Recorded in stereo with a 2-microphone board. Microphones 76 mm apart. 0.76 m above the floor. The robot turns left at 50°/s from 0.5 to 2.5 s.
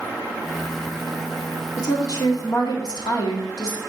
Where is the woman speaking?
125° left, 1.7 m; by 3.8 s 90° left, 1.7 m.